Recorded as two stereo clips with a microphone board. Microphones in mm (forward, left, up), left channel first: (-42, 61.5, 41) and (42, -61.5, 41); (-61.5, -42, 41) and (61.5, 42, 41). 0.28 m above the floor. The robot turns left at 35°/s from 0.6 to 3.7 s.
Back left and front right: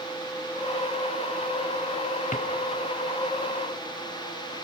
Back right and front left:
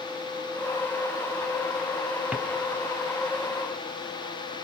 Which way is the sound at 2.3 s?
115° left.